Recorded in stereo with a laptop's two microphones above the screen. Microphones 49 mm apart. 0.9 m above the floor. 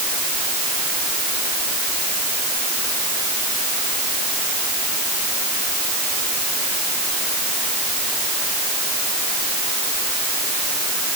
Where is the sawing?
I don't hear sawing.